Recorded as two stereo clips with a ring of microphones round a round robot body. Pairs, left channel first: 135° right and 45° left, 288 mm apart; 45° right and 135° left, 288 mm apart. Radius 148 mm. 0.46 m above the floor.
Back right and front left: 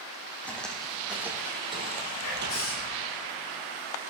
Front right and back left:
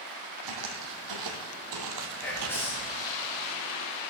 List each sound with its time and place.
0.4 s footsteps: 140° left, 1.6 m; by 2.9 s 80° left, 0.9 m
2.2 s whispering: 125° right, 5 m